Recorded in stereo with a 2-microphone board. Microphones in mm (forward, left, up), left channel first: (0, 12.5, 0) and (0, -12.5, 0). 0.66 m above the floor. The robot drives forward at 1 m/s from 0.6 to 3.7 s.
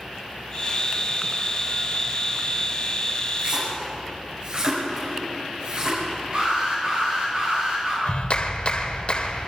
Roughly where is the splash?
Right.